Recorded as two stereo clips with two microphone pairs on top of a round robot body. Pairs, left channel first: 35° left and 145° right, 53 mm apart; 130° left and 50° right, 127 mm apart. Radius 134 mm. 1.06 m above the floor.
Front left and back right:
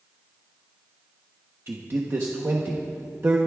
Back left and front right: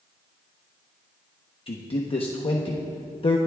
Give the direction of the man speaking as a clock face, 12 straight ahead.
6 o'clock.